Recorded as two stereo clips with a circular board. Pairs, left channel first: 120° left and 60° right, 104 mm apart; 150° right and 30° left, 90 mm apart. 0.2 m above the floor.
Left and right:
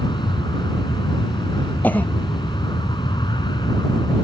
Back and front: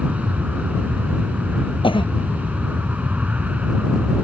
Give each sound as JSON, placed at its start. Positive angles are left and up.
{"t": 0.0, "sound": "an aircraft", "azimuth_deg": 100}
{"t": 1.8, "sound": "a cough", "azimuth_deg": -165}